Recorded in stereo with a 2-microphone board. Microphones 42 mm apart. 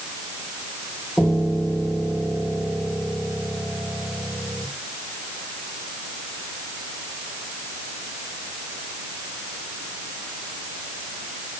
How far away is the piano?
About 6.5 m.